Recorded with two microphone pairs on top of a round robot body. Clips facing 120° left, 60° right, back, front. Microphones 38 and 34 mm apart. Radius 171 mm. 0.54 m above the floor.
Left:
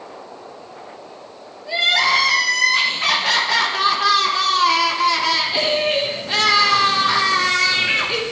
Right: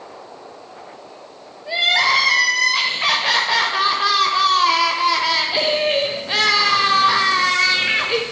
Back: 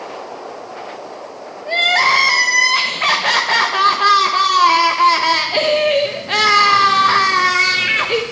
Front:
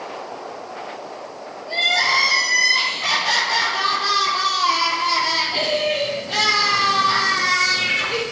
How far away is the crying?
About 0.9 m.